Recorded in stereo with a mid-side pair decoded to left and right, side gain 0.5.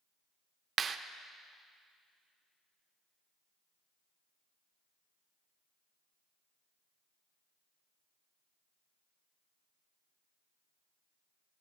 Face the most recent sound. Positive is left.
turn(degrees=-45)